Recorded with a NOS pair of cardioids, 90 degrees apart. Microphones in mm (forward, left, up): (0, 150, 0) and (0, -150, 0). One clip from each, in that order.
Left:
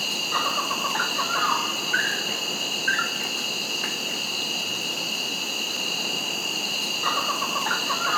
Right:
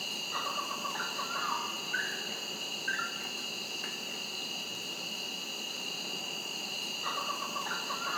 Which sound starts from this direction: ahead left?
An insect, at 0.0 s.